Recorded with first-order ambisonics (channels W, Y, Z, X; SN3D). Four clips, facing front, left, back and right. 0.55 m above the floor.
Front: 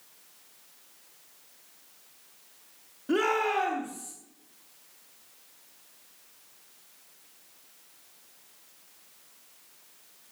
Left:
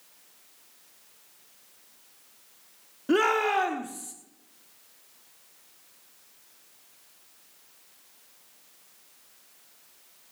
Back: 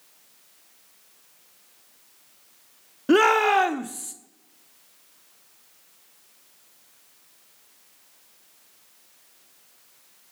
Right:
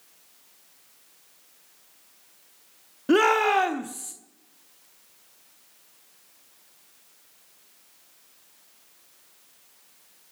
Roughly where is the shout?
Behind right.